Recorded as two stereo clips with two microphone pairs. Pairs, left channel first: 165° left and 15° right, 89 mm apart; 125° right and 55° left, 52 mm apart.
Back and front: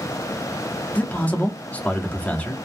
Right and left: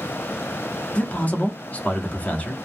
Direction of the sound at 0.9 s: 135° right.